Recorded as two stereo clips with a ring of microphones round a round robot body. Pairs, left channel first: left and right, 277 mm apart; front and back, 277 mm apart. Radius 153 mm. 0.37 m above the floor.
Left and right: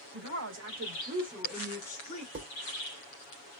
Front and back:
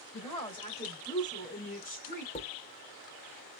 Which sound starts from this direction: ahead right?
Dishes clattering, at 2.4 s.